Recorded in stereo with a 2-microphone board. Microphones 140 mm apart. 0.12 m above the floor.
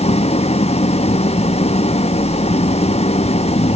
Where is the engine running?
50° left (ahead or behind).